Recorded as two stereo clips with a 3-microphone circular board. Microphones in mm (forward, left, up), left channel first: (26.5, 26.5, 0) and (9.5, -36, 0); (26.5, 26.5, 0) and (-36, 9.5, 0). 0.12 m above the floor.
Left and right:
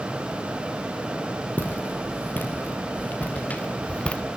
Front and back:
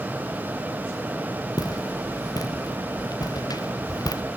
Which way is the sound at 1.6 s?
15° left.